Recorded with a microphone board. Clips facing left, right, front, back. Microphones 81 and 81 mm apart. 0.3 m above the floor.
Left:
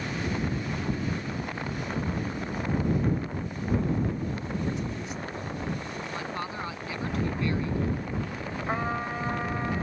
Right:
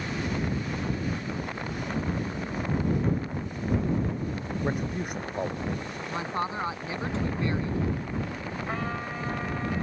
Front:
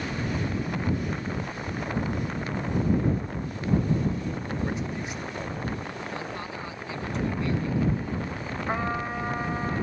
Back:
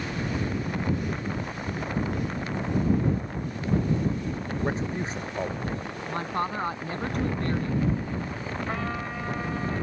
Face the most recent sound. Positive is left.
turn(degrees=45)